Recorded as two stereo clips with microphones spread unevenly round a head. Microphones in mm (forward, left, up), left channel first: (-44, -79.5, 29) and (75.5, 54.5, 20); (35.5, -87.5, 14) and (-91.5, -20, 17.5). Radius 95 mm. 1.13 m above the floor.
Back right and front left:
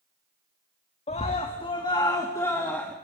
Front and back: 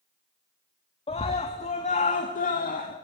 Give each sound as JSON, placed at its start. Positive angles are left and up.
{"t": 1.1, "sound": "a scream", "azimuth_deg": -75, "distance_m": 2.0}